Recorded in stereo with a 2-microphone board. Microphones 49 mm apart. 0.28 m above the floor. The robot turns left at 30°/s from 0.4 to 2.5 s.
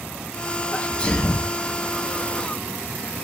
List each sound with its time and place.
0.7 s a sneeze: 30° left (ahead or behind), 1.4 m; by 1.5 s 10° left (ahead or behind), 1.4 m